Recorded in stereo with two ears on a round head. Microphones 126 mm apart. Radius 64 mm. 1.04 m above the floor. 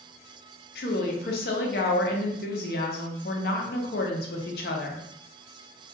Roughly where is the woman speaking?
Left.